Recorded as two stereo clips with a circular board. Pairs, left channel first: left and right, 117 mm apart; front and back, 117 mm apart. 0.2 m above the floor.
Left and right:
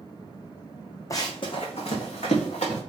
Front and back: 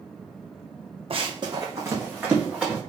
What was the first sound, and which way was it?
Running footsteps, 150° left.